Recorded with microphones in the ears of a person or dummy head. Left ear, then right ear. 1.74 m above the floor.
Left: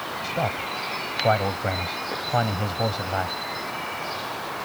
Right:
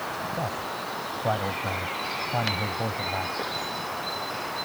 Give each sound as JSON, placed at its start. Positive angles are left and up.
{"t": 0.2, "sound": "a man speaking", "side_deg": 80}